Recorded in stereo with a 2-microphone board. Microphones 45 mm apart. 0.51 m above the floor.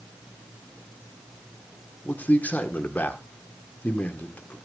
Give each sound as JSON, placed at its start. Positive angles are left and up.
{"t": 2.0, "sound": "a man speaking", "side_deg": 35, "distance_m": 1.5}